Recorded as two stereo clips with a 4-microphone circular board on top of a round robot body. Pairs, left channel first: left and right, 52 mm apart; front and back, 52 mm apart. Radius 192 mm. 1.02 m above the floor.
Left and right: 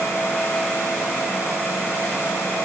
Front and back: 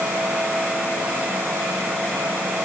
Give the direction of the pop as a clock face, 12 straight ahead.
No pop in this recording.